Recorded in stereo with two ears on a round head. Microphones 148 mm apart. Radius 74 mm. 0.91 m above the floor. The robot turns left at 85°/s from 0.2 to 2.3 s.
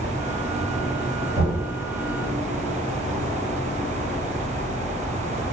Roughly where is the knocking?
Left.